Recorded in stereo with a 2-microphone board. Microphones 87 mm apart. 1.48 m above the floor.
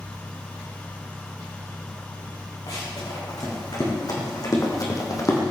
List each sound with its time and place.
2.7 s running footsteps: 55° left (ahead or behind), 6.5 m; by 5.4 s 40° left (ahead or behind), 3 m